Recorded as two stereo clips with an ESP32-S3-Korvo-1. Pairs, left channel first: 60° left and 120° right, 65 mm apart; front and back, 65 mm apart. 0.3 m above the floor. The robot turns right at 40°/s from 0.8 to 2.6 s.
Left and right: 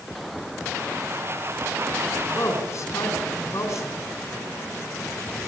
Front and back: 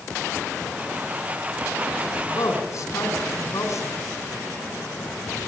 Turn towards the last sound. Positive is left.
turn(degrees=35)